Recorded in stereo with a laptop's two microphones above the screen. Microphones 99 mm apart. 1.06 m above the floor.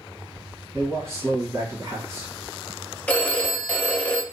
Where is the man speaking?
25° right (ahead or behind), 1.3 m.